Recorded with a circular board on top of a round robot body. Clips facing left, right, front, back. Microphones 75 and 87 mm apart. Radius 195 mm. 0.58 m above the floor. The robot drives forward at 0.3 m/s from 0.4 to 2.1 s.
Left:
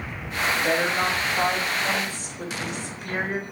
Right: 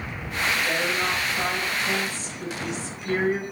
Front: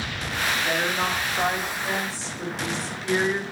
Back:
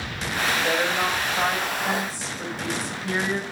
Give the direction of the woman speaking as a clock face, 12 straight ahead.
8 o'clock.